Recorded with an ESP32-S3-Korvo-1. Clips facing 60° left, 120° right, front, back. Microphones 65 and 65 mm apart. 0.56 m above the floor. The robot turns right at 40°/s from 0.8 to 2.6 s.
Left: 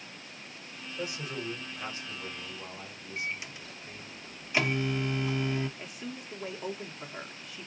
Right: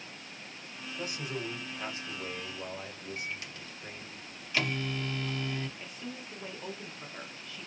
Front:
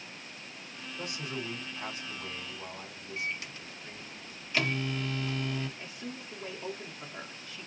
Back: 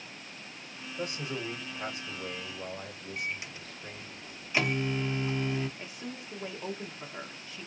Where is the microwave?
120° left, 0.6 m.